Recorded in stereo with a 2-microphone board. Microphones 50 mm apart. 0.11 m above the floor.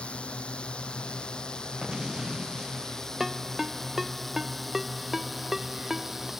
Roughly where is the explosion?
Centre.